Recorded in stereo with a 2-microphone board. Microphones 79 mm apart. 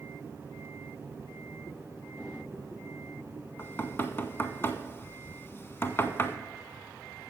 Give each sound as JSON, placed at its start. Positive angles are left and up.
{"t": 3.6, "sound": "knocking", "side_deg": 30, "distance_m": 0.8}